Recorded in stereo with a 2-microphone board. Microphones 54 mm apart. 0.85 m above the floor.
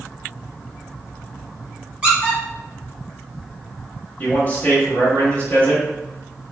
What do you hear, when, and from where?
2.0 s a squeak: 25° right (ahead or behind), 1.8 m
4.2 s a man speaking: 30° left (ahead or behind), 1.6 m